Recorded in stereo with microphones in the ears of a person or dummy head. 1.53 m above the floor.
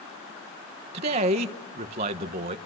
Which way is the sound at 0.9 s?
35° right (ahead or behind).